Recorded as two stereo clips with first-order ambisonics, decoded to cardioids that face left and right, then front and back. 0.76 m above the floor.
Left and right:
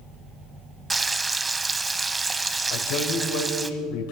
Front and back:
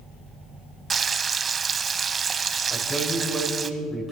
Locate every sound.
0.9 s frying: 150° right, 0.6 m
2.7 s a man speaking: 90° left, 3 m